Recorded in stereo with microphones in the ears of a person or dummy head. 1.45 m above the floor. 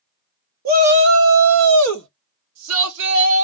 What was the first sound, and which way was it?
A shout, 45° right (ahead or behind).